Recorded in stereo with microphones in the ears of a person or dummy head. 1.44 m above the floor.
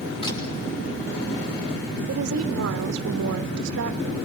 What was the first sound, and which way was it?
A camera shutter, 35° left (ahead or behind).